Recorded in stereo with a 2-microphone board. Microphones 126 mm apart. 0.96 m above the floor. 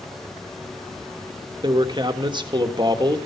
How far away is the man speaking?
About 1.3 m.